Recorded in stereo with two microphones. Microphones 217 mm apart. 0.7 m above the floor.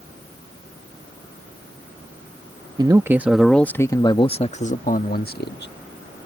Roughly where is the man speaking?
Centre.